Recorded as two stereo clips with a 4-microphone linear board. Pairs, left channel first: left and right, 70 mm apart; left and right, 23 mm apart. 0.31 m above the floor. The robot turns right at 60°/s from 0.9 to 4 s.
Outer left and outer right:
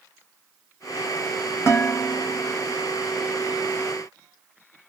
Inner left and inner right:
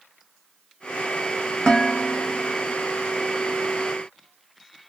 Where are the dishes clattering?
75° left, 1.1 m; by 2.5 s 125° left, 1.1 m.